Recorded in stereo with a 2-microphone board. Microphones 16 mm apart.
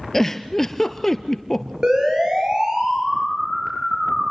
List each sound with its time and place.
0.1 s a giggle: 20° left (ahead or behind), 1.1 m
1.8 s a siren: 45° right (ahead or behind), 8 m; by 4.2 s 30° right (ahead or behind), 9 m